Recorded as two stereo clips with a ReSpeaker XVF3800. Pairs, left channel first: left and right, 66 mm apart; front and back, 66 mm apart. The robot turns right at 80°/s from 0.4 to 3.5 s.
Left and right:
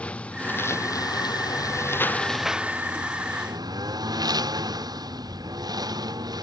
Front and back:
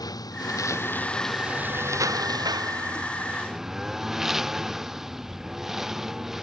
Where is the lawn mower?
15° left; by 6.4 s 95° right.